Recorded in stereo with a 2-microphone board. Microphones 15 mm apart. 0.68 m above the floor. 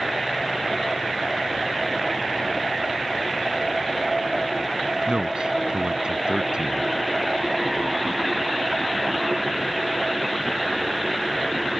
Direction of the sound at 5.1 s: 80° right.